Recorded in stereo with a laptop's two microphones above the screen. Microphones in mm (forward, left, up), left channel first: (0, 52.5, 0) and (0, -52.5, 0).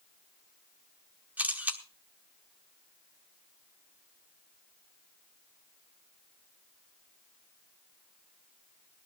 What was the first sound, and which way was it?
A camera shutter, 15° right (ahead or behind).